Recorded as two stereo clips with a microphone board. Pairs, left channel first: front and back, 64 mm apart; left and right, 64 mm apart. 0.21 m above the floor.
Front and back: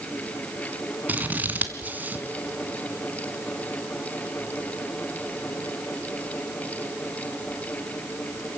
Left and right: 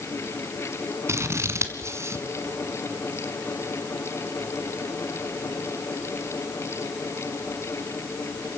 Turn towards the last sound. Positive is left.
turn(degrees=-125)